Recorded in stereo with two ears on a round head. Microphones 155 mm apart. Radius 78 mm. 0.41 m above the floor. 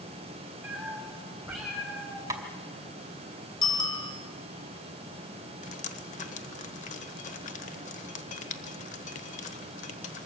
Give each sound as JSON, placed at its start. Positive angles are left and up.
{"t": 0.6, "sound": "a cat meowing", "side_deg": -5, "distance_m": 7.0}
{"t": 2.3, "sound": "tapping", "side_deg": -20, "distance_m": 2.0}
{"t": 3.6, "sound": "a bicycle bell", "side_deg": 20, "distance_m": 2.5}
{"t": 5.6, "sound": "dripping", "side_deg": 45, "distance_m": 1.1}